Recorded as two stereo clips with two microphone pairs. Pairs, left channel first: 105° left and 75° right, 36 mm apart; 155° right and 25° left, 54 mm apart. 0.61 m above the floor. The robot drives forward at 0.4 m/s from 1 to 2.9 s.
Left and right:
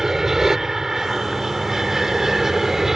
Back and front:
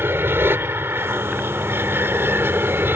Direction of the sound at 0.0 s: Straight ahead.